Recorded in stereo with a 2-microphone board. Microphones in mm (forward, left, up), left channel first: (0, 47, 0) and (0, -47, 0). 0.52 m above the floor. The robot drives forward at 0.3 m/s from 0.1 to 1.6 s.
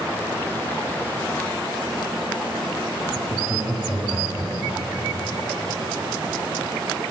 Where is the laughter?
20° right (ahead or behind), 4 m.